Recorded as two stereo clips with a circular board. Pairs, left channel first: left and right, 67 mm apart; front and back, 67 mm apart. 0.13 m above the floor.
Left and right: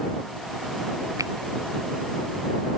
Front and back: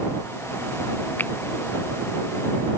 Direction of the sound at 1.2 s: 60° right.